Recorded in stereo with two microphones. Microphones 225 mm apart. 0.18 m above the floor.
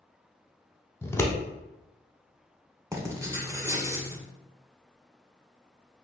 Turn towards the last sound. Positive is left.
turn(degrees=-15)  # may be behind; listen again after turning